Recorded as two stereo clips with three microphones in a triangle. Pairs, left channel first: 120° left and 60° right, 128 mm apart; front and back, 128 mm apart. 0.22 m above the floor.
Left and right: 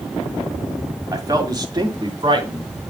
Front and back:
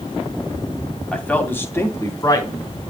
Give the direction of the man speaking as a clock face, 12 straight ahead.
2 o'clock.